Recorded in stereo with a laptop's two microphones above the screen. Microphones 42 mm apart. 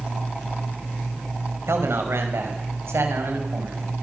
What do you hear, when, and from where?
1.7 s a man speaking: 85° right, 5.5 m